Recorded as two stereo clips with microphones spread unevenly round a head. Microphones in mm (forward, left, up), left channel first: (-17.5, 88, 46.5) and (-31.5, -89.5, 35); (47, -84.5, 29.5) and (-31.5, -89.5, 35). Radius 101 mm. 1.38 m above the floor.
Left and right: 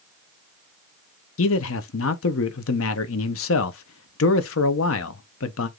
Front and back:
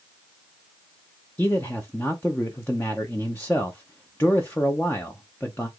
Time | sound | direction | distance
1.4 | a man speaking | 85° left | 0.8 m